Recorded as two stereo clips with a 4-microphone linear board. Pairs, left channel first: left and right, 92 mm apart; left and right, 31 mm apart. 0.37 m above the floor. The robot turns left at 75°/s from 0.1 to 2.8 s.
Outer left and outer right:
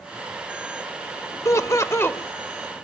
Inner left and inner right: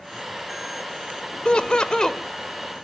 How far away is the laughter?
About 0.9 m.